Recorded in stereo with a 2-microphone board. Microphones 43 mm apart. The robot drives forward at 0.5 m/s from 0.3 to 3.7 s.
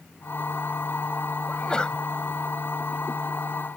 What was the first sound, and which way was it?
A sneeze, 20° left (ahead or behind).